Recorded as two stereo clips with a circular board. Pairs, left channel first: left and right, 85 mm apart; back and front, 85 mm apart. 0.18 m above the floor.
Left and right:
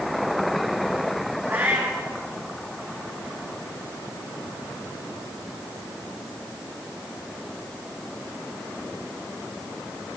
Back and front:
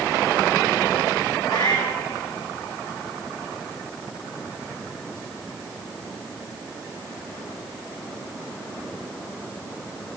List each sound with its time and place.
1.5 s a cat meowing: 150° right, 2.5 m